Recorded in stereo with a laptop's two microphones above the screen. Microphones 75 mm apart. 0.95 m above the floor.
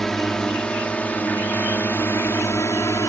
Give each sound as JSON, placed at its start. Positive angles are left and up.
{"t": 0.0, "sound": "a drone", "side_deg": 5}